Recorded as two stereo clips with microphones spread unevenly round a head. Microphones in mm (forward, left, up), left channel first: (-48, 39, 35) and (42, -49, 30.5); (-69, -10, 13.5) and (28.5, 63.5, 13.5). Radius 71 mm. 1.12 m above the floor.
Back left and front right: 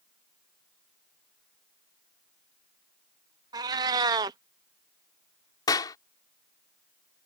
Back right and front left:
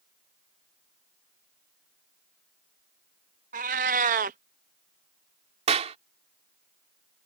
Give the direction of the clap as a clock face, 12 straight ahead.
10 o'clock.